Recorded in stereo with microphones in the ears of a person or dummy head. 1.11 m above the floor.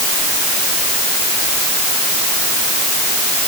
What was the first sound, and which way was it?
Only background noise.